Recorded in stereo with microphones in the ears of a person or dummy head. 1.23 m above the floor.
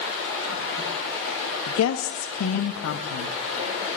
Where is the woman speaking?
65° left (ahead or behind), 1.0 m.